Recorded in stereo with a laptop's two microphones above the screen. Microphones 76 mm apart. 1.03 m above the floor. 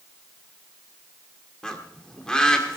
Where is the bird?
10° left (ahead or behind), 1.9 m.